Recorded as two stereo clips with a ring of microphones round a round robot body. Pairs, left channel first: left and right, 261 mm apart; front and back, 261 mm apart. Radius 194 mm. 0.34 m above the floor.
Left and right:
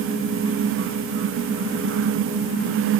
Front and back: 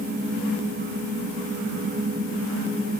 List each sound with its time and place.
Only background noise.